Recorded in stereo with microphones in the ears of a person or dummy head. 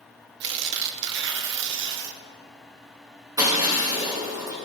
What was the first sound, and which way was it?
Tearing paper, 60° right (ahead or behind).